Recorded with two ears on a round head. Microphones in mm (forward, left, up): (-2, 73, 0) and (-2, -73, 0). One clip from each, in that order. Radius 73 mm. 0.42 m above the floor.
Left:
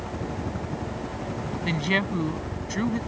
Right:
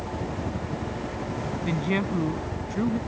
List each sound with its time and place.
0.0 s a helicopter: 15° left (ahead or behind)
1.6 s a woman speaking: 75° left (ahead or behind)